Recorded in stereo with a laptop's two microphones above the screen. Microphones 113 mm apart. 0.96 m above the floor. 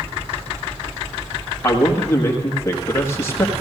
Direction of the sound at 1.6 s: 25° left (ahead or behind).